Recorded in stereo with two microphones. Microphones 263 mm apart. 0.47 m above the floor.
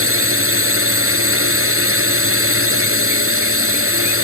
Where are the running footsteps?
No running footsteps in this recording.